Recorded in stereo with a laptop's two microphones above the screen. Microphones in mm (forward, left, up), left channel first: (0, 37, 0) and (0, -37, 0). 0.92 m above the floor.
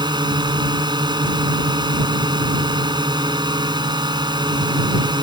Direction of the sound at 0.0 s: 80° right.